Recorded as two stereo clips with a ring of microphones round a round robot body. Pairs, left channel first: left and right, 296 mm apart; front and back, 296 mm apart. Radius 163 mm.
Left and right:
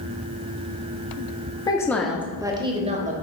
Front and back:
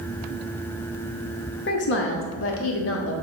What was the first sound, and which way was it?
A woman speaking, 25° left.